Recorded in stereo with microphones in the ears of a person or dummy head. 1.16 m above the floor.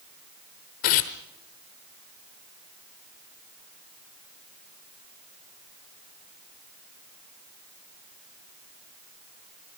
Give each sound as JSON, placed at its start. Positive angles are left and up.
{"t": 0.8, "sound": "tearing paper", "side_deg": 45, "distance_m": 1.0}